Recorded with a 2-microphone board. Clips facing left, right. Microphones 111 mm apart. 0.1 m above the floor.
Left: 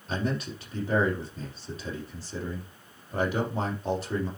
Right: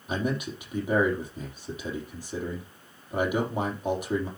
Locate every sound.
0.1 s a man speaking: 15° right (ahead or behind), 4 m